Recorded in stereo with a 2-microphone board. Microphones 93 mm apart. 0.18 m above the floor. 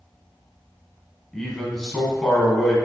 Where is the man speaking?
5° left (ahead or behind), 1.4 m.